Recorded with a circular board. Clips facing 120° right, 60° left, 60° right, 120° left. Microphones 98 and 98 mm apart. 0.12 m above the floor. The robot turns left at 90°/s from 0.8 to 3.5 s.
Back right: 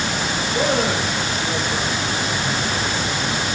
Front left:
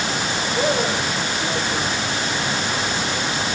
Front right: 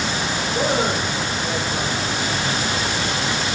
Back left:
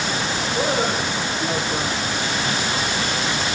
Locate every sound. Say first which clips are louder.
0.5 s a man speaking: back right 1 dB, front right 1 dB; 135° right, 7.5 m; by 2.1 s 105° left, 7.5 m